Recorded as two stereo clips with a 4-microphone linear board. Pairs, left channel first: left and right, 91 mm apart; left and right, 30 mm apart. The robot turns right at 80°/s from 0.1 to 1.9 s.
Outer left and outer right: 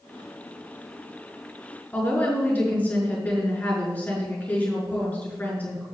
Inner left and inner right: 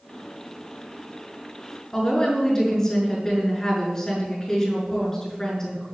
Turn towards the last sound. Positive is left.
turn(degrees=15)  # may be behind; listen again after turning